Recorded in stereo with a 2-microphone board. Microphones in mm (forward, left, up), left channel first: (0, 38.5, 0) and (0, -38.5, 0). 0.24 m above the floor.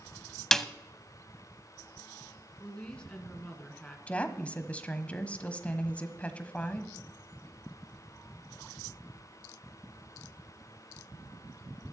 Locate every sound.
0.5 s a snare drum: 5° left (ahead or behind), 0.6 m
2.6 s a woman speaking: 15° left (ahead or behind), 2 m
4.1 s a woman speaking: 20° left (ahead or behind), 1.2 m